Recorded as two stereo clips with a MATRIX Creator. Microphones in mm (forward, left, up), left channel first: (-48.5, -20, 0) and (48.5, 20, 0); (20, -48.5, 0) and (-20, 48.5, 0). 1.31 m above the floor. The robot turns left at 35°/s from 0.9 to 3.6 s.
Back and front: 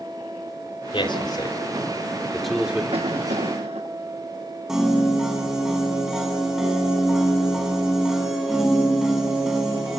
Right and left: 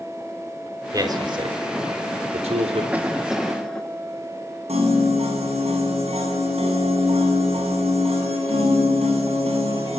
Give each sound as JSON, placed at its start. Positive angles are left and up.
{"t": 0.9, "sound": "a man speaking", "azimuth_deg": 170, "distance_m": 4.0}
{"t": 2.9, "sound": "a cough", "azimuth_deg": 40, "distance_m": 1.4}
{"t": 4.7, "sound": "a piano", "azimuth_deg": 110, "distance_m": 7.5}